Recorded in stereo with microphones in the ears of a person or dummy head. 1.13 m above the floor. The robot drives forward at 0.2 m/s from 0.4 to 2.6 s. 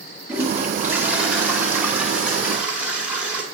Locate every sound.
0.3 s a toilet flushing: 10° right (ahead or behind), 1.0 m; by 3.4 s 5° right (ahead or behind), 1.4 m